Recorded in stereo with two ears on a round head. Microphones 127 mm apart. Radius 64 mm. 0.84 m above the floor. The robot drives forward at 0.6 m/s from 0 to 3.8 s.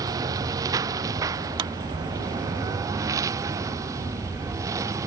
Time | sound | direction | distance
0.0 | a lawn mower | 25° right (ahead or behind) | ?
1.6 | a clap | 30° right (ahead or behind) | ?